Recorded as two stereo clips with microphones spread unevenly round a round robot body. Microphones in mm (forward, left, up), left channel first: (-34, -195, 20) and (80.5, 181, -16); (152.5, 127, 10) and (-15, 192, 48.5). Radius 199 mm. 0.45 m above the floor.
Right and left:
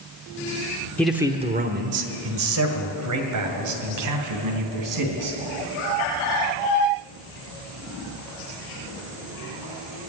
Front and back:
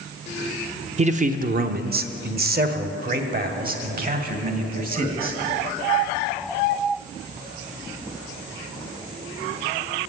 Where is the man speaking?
160° left, 0.7 m; by 5.4 s 115° left, 3.5 m.